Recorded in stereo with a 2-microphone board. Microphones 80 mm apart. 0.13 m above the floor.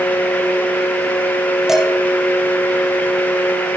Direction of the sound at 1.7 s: 5° right (ahead or behind).